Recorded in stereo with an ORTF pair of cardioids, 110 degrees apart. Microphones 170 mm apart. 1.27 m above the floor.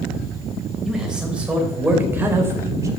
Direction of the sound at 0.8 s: 5° right.